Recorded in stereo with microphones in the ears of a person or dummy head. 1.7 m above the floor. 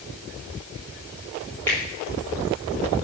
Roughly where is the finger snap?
Centre.